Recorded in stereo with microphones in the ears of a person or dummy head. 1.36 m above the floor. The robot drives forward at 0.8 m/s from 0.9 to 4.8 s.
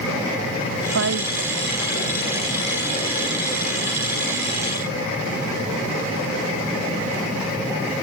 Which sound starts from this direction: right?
A woman speaking, at 0.8 s.